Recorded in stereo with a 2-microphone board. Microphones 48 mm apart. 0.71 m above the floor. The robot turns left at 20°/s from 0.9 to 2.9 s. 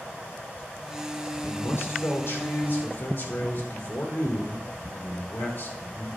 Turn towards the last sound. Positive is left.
turn(degrees=40)  # may be behind; listen again after turning